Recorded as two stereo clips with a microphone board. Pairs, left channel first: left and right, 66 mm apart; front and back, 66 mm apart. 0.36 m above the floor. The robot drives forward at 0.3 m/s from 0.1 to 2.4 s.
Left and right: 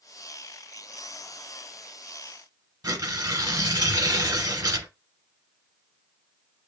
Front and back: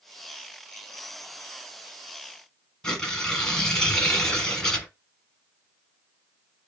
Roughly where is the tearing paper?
Right.